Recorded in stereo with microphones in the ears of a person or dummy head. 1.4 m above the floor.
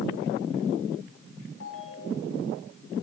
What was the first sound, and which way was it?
A ringtone, 80° left.